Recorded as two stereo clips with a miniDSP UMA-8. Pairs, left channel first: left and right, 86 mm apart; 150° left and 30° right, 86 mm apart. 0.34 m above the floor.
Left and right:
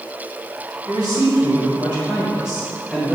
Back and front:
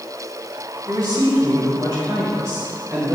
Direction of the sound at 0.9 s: 65° right.